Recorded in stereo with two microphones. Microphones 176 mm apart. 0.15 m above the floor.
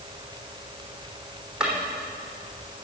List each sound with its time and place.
1.6 s a drawer: 5° right (ahead or behind), 3 m